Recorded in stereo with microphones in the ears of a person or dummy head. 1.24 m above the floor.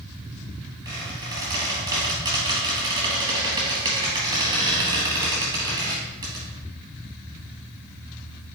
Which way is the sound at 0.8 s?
20° right (ahead or behind).